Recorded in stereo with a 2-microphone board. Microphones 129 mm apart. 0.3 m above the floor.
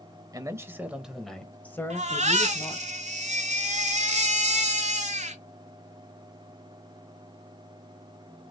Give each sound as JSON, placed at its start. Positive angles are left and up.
{"t": 0.3, "sound": "a man speaking", "side_deg": -30, "distance_m": 1.0}
{"t": 1.9, "sound": "a baby crying", "side_deg": -65, "distance_m": 0.9}